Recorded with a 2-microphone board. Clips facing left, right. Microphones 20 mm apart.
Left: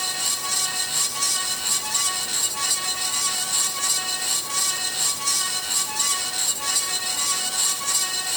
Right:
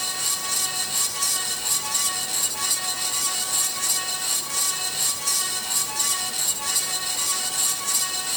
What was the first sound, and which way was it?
Only background noise.